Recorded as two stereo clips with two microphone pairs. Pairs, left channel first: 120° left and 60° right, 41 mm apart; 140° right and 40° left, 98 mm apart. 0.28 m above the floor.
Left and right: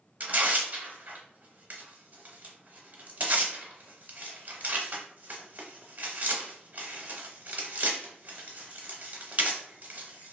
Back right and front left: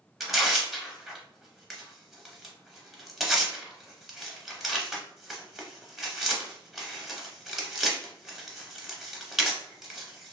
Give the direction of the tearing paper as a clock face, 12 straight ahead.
1 o'clock.